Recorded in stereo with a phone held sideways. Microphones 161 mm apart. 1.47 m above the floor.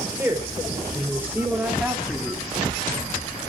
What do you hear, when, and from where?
0.2 s a woman speaking: 15° right (ahead or behind), 4.5 m; by 2.5 s 5° right (ahead or behind), 2 m